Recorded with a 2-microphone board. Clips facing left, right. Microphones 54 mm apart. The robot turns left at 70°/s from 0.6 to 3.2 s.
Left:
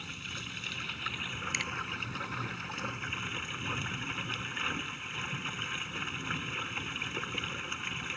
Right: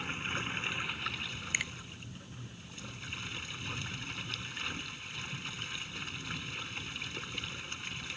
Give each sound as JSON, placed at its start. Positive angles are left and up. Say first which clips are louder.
{"t": 0.0, "sound": "running water", "louder": "right 5 dB", "azimuth_deg": -150}
{"t": 1.5, "sound": "a finger snap", "louder": "right 1 dB", "side_deg": -15}